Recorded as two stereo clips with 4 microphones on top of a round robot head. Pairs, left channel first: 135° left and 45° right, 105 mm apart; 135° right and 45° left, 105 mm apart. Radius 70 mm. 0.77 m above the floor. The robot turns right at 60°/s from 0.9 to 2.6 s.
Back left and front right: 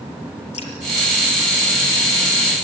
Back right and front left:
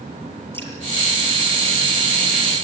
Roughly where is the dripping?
Behind left.